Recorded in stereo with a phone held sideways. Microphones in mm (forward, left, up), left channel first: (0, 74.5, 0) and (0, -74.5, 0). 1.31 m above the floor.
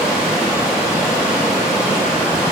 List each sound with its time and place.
0.0 s running water: 5° right (ahead or behind), 2.5 m